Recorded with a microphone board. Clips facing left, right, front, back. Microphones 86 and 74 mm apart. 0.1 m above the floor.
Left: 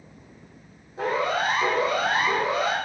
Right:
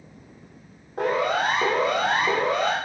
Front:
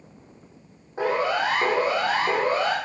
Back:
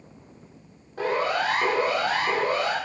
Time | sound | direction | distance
1.0 | a siren | 65° right | 6.5 m